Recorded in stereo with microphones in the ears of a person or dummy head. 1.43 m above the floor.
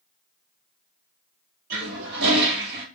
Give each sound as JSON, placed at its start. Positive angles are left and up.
{"t": 1.7, "sound": "a toilet flushing", "side_deg": -60, "distance_m": 1.0}